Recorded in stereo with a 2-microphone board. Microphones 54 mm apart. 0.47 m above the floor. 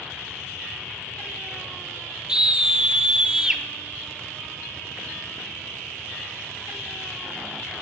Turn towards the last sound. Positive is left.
turn(degrees=-15)  # may be behind; listen again after turning